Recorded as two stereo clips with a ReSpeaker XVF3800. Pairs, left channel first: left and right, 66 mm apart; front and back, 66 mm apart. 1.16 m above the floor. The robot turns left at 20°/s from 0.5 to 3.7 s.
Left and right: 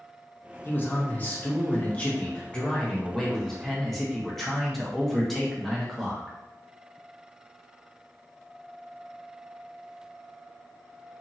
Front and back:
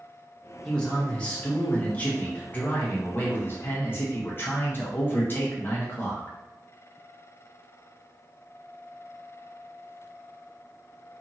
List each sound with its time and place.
0.7 s a man speaking: 70° left, 0.7 m; by 6.3 s 10° left, 0.7 m